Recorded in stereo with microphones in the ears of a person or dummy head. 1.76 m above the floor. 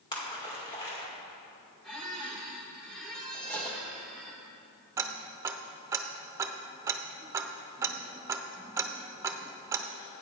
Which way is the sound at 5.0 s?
15° right (ahead or behind).